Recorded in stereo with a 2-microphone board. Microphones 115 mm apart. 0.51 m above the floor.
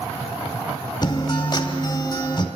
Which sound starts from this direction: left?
A guitar, at 1.0 s.